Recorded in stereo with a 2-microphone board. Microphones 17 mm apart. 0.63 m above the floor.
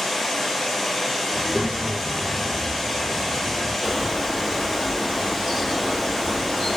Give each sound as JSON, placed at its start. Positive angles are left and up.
{"t": 0.0, "sound": "running water", "side_deg": 10, "distance_m": 1.6}
{"t": 1.3, "sound": "a child speaking", "side_deg": -60, "distance_m": 0.5}
{"t": 3.8, "sound": "a bird", "side_deg": -5, "distance_m": 1.1}